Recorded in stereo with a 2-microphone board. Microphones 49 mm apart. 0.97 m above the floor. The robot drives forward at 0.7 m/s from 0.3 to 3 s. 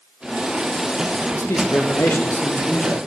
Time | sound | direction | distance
1.3 | a man speaking | 65° left (ahead or behind) | 0.8 m